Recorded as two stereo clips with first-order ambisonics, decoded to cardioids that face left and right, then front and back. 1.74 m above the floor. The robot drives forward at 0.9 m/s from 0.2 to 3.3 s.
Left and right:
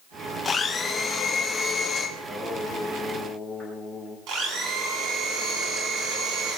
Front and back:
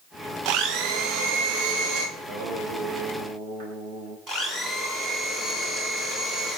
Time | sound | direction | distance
0.5 | a blender | 165° left | 1.7 m
2.2 | singing | 170° right | 3 m
4.3 | a blender | 115° right | 4 m